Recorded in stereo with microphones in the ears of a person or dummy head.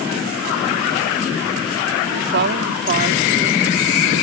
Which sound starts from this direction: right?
A woman speaking, at 2.1 s.